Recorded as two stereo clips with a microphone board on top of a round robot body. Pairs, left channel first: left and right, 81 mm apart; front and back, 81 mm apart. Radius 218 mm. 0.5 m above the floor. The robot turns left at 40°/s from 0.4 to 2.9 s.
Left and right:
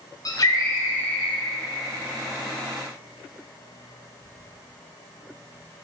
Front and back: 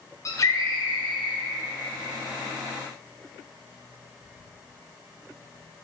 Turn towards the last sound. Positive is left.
turn(degrees=-50)